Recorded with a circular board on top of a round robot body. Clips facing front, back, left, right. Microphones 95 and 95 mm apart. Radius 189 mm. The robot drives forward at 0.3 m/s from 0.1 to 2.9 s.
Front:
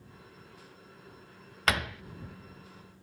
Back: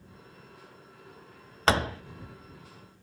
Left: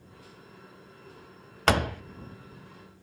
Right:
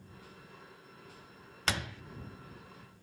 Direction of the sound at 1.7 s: 120° left.